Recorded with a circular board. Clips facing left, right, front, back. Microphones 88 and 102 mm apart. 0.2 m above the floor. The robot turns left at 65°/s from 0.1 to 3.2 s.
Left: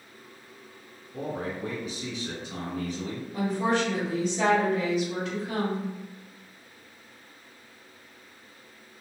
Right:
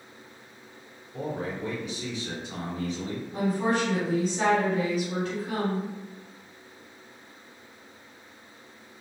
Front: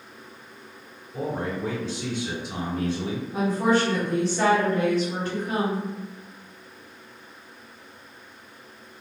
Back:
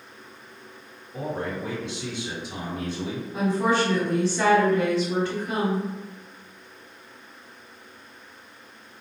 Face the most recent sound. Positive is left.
turn(degrees=-65)